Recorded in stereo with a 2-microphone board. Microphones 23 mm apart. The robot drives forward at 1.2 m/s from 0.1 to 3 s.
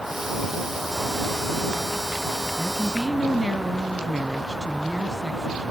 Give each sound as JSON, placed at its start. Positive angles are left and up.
{"t": 2.6, "sound": "a woman speaking", "side_deg": -20, "distance_m": 1.0}